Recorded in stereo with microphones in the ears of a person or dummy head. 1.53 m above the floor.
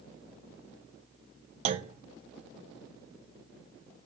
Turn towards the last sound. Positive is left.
turn(degrees=-35)  # may be behind; listen again after turning